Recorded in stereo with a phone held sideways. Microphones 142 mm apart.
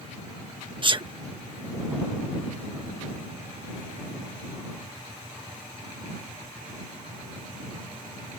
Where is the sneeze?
35° right (ahead or behind).